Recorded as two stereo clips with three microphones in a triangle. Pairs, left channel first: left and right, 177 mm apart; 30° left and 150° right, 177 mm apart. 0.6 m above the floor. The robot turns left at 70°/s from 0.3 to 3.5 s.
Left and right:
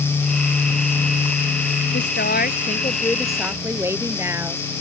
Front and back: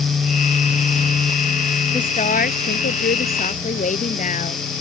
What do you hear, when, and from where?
1.9 s a woman speaking: 95° left; by 4.6 s 15° right